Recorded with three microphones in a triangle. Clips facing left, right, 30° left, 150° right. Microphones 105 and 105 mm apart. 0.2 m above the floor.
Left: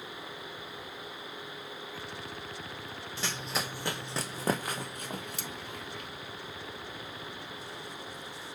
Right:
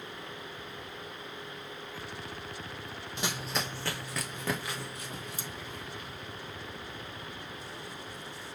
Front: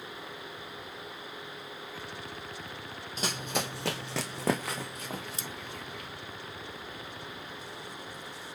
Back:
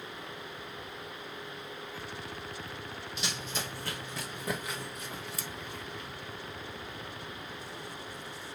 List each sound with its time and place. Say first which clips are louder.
3.2 s running footsteps: right 1 dB, front 6 dB; 20° right, 0.6 m; by 6.1 s 60° left, 1.9 m
5.3 s scissors: left 1 dB, even; 95° left, 1.3 m